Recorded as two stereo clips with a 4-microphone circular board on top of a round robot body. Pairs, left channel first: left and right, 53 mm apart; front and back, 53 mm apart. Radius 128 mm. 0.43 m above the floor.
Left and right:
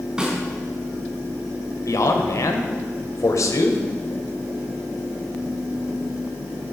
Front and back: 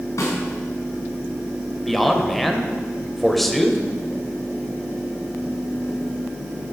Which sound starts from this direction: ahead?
A snare drum, at 0.2 s.